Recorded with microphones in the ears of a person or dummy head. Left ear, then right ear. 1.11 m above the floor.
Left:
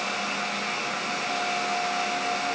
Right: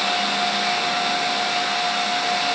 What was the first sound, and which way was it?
Only background noise.